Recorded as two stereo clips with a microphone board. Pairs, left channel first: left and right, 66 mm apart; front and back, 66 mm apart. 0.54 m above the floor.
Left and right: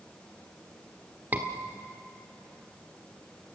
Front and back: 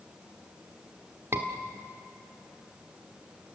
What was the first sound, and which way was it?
A scream, 145° right.